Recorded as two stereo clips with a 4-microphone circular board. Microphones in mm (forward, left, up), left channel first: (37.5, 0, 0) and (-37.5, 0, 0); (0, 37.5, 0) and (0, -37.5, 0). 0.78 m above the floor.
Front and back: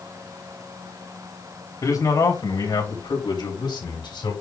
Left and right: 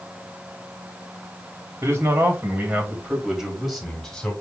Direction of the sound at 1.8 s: 35° right.